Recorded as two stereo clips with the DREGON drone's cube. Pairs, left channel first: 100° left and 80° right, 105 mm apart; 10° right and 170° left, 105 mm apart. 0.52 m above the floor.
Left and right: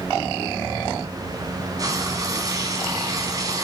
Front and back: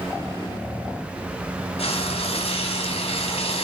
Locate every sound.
1.8 s frying: 25° right, 4 m